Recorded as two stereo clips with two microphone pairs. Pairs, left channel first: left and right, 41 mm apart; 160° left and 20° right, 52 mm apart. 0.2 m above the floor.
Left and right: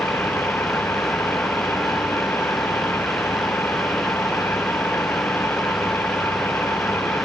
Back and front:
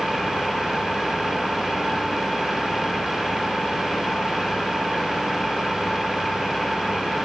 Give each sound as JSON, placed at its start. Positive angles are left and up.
{"t": 0.0, "sound": "an engine running", "azimuth_deg": 70}